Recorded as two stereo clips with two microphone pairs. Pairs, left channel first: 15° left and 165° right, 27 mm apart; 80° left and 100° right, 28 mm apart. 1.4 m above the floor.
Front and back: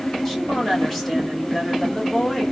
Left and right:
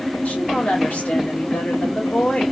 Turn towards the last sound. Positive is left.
turn(degrees=90)